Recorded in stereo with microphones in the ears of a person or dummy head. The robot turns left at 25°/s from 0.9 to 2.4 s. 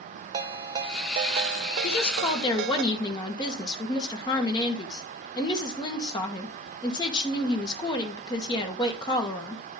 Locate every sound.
0.3 s a ringtone: 35° right, 1.3 m; by 2.8 s 70° right, 1.3 m
1.8 s a woman speaking: 35° left (ahead or behind), 1.9 m; by 9.6 s 20° left (ahead or behind), 1.9 m